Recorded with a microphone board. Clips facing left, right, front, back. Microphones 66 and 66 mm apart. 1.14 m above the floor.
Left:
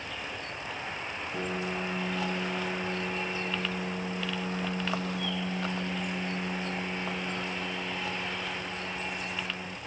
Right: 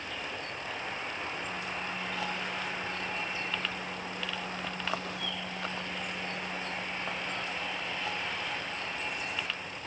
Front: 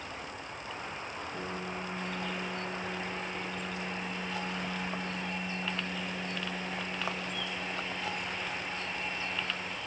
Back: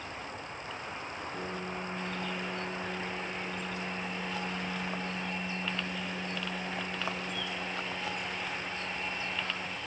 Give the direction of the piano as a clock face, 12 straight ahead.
9 o'clock.